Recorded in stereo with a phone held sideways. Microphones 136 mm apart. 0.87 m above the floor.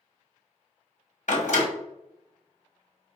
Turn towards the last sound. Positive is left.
turn(degrees=65)  # may be behind; listen again after turning